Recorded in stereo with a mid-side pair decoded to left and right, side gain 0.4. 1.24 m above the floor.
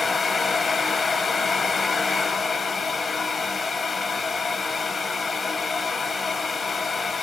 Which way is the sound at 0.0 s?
45° left.